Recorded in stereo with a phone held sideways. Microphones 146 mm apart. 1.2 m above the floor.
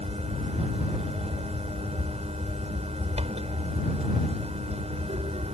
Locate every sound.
0.0 s a fan: 45° right (ahead or behind)